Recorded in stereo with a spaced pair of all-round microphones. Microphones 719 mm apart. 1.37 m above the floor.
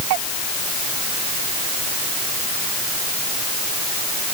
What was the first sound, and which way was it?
Only background noise.